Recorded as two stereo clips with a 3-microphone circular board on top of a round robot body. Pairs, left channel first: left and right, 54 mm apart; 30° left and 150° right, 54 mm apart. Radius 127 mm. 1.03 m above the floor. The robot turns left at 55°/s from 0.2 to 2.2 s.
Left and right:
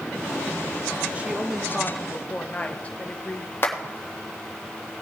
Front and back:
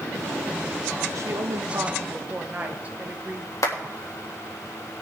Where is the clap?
40° left, 1.7 m.